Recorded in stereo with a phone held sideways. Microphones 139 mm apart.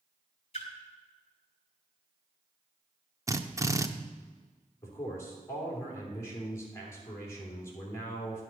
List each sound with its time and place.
0.5 s a splash: 45° left (ahead or behind), 2.5 m
3.3 s a drill: 20° right (ahead or behind), 0.5 m
4.8 s a man speaking: 20° left (ahead or behind), 3 m